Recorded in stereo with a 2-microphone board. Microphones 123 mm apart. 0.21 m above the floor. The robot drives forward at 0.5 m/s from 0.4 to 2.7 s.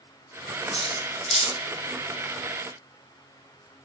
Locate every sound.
0.7 s cutlery clinking: 55° left (ahead or behind), 1.8 m; by 1.6 s 65° left (ahead or behind), 1.6 m